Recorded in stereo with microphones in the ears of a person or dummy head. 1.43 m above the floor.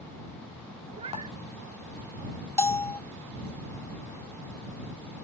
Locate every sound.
0.9 s a cat meowing: 35° right (ahead or behind)
2.6 s a bell: 10° left (ahead or behind)